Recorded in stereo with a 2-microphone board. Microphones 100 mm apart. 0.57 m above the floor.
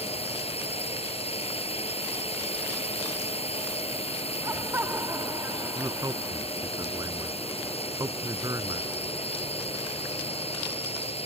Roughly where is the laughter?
Right.